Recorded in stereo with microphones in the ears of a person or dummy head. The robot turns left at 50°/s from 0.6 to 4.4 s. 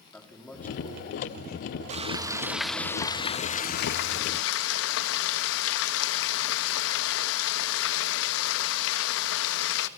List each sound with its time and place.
0.1 s a man speaking: 175° left, 3.5 m; by 1.8 s 115° left, 3.5 m
1.9 s frying: 140° right, 1.4 m; by 9.9 s 95° left, 1.4 m